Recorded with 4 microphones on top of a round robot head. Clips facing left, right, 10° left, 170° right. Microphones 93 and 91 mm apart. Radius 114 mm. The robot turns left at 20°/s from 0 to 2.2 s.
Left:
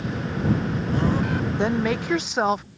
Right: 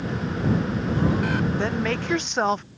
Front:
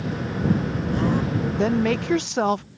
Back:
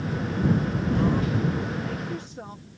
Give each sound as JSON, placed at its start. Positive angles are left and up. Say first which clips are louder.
{"t": 1.6, "sound": "a woman speaking", "louder": "left 2 dB, front 10 dB", "azimuth_deg": 15}